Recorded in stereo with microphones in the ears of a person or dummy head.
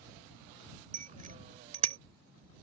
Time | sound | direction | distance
0.9 | a bicycle bell | 45° right (ahead or behind) | ?